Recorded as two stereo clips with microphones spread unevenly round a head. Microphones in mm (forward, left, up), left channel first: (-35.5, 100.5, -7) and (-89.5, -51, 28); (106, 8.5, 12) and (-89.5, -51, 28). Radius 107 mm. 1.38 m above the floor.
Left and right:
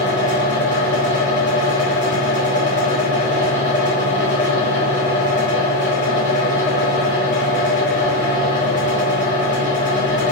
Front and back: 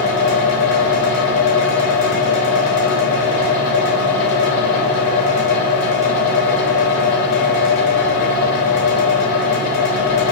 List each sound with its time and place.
0.0 s a fan: 5° right, 0.8 m